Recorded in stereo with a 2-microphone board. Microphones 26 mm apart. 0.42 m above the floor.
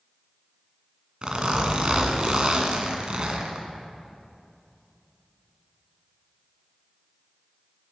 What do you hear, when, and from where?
1.2 s a zipper: 35° right (ahead or behind), 1.6 m